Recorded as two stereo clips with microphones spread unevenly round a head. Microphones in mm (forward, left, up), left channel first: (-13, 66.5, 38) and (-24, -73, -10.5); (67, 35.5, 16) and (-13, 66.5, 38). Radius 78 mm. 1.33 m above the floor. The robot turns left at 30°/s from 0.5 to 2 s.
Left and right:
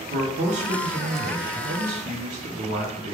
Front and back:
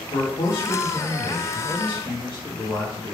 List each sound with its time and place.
0.1 s a man speaking: 65° right, 0.9 m; by 3.2 s 110° right, 0.9 m